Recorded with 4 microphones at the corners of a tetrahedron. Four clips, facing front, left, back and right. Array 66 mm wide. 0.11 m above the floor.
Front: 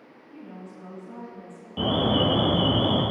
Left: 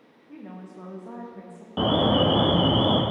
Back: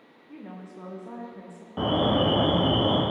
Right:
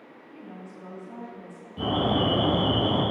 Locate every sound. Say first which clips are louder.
0.3 s a woman speaking: left 2 dB, back 1 dB; 140° left, 4.5 m; by 1.7 s 125° left, 5 m
1.8 s an alarm: left 4 dB, even; 100° left, 3.5 m